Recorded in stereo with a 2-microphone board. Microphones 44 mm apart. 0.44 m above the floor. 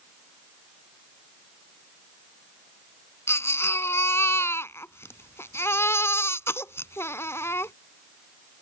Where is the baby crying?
80° left.